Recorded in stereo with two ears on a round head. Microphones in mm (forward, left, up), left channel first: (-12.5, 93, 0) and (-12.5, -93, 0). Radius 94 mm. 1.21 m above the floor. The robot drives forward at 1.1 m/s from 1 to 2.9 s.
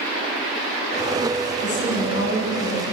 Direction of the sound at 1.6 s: 55° left (ahead or behind).